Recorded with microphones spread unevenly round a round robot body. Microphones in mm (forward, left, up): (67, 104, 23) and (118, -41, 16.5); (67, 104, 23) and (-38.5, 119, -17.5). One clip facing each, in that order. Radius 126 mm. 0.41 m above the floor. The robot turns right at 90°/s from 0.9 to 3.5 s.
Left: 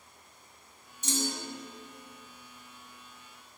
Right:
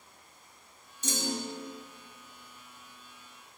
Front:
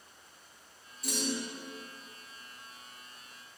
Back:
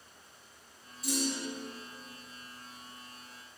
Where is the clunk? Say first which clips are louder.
Even, back 1 dB; 85° right, 1.1 m; by 1.5 s 40° right, 1.1 m.